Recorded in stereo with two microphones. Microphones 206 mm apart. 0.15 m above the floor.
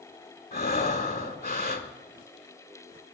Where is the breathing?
45° left (ahead or behind), 0.7 m.